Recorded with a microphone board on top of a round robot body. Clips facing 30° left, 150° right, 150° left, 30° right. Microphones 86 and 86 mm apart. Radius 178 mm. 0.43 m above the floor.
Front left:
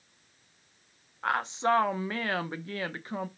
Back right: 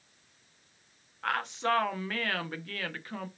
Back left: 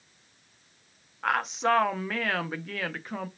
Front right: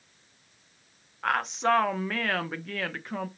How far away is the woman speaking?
About 0.8 m.